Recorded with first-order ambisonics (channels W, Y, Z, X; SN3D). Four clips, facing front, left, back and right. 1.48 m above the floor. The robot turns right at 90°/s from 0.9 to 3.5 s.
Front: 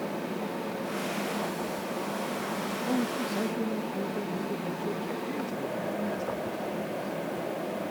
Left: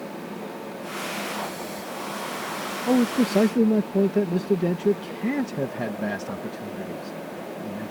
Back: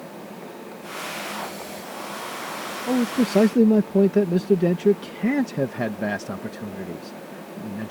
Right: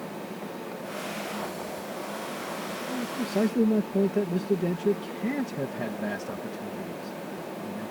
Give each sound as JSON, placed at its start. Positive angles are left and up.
{"t": 2.9, "sound": "a man speaking", "azimuth_deg": 110}